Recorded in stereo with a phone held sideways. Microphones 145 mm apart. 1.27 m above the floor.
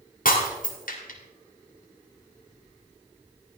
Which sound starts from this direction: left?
Breaking glass, at 0.2 s.